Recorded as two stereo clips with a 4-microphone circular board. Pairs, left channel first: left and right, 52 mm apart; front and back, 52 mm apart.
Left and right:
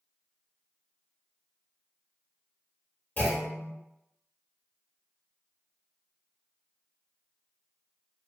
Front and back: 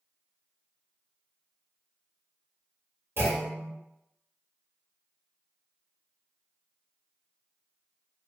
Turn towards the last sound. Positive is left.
turn(degrees=150)